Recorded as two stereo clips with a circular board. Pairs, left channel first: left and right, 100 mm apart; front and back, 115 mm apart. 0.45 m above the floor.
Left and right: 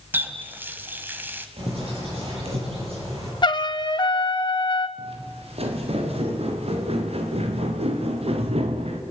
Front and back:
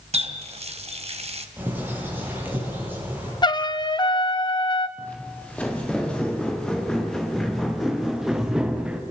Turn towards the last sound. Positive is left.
turn(degrees=-100)